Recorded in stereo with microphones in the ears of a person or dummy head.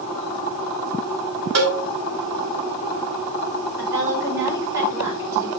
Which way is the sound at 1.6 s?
65° right (ahead or behind).